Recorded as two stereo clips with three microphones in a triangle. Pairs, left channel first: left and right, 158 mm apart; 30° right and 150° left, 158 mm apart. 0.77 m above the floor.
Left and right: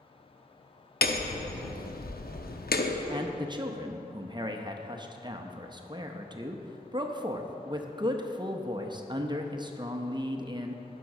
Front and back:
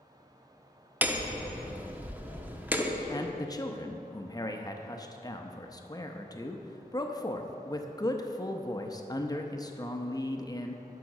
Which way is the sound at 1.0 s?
70° left.